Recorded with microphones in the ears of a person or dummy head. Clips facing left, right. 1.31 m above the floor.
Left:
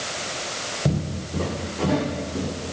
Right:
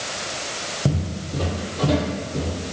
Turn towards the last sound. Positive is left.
turn(degrees=-35)  # may be behind; listen again after turning